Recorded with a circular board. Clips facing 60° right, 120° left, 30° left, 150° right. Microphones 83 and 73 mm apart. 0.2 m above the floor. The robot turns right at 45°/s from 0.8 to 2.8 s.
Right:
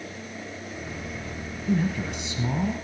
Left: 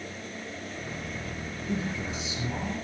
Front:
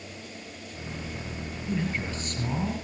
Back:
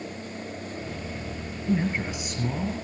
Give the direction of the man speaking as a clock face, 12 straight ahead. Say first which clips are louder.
Right 7 dB, back 5 dB; 3 o'clock.